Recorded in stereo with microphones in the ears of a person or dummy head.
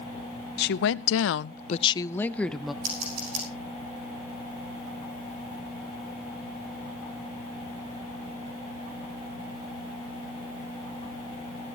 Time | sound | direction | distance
0.6 | a woman speaking | 60° left (ahead or behind) | 0.9 m
2.8 | scissors | 80° right | 5.5 m